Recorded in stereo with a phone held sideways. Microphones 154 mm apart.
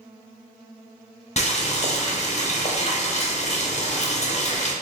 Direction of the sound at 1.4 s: 45° left (ahead or behind).